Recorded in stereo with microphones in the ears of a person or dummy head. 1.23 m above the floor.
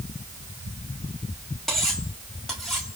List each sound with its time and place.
1.7 s cutlery clinking: centre (ahead or behind), 1.8 m